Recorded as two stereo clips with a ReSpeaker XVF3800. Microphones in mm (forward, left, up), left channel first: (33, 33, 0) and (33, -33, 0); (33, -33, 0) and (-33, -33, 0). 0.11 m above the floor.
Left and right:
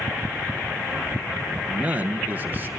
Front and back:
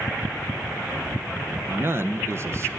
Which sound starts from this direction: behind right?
A man speaking, at 1.7 s.